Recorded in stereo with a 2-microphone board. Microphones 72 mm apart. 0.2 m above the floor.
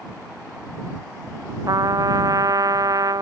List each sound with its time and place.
1.7 s a trumpet: 60° right (ahead or behind)